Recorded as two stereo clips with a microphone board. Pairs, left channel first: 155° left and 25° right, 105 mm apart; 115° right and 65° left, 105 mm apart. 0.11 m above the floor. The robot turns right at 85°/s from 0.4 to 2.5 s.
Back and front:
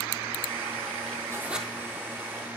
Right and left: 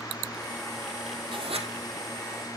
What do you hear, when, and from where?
1.3 s writing: 35° left, 2.5 m; by 1.7 s 65° left, 2.5 m